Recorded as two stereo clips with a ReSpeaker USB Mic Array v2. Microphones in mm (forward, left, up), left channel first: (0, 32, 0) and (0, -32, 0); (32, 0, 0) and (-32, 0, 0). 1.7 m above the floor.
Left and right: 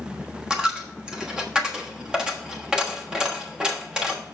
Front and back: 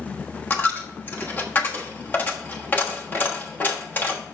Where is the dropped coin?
20° right, 1.2 m.